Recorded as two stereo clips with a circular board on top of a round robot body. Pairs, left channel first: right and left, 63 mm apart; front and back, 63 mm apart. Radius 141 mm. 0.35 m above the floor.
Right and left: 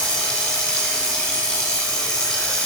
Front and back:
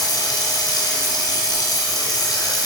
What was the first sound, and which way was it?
Running water, 15° right.